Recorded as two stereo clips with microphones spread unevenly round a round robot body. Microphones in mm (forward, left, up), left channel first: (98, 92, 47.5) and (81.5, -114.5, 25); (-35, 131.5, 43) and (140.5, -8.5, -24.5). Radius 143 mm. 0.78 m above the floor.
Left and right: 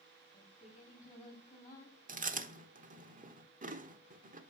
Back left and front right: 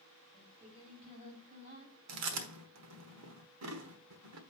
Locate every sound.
0.3 s singing: 30° left, 4.5 m
2.1 s chewing: 40° right, 1.1 m